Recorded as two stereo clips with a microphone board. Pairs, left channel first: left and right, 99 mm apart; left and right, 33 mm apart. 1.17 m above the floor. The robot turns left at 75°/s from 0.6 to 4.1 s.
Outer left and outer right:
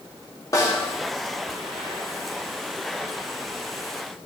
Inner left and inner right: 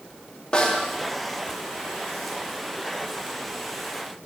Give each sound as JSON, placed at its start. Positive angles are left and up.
{"t": 0.5, "sound": "a snare drum", "side_deg": 35, "distance_m": 2.5}